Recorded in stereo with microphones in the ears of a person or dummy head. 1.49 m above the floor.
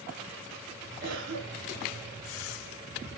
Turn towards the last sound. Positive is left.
turn(degrees=-70)  # may be behind; listen again after turning